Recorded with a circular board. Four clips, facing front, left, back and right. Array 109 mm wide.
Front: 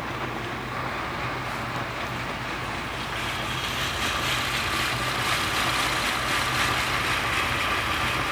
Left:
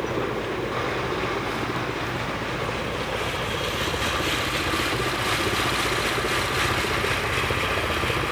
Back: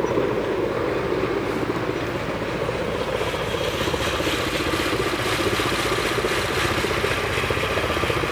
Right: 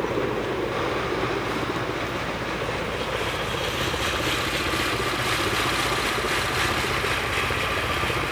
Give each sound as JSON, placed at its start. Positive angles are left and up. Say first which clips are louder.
{"t": 0.0, "sound": "a helicopter", "louder": "right 1 dB, back 10 dB", "azimuth_deg": -170}